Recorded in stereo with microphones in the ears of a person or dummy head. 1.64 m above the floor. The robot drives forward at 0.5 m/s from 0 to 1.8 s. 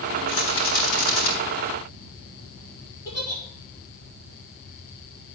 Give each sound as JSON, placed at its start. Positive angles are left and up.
{"t": 0.3, "sound": "a rattle", "side_deg": 50, "distance_m": 6.5}
{"t": 3.0, "sound": "a giggle", "side_deg": 20, "distance_m": 6.0}